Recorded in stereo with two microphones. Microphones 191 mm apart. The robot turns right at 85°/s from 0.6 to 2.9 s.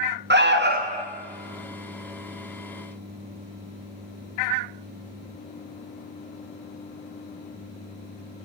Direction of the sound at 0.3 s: 65° right.